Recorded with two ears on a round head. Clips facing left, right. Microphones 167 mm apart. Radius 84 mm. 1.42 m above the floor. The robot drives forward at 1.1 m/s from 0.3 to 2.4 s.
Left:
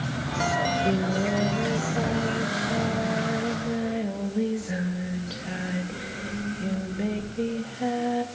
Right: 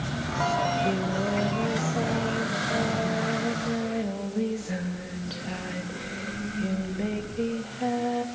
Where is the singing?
15° left (ahead or behind), 0.6 m; by 8.2 s 5° left (ahead or behind), 2.5 m.